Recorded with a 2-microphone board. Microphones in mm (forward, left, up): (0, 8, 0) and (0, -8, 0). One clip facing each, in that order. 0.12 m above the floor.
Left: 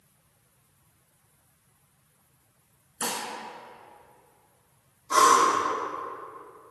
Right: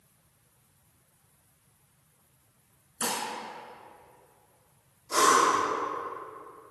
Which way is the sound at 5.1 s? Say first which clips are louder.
Left 3 dB; 70° left (ahead or behind).